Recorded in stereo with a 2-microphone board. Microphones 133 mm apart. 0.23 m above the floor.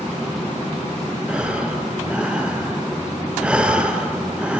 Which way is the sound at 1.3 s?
10° right (ahead or behind).